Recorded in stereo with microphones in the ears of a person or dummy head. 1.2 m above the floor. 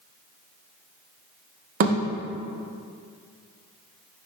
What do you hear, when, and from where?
1.8 s a thud: 40° right (ahead or behind), 0.6 m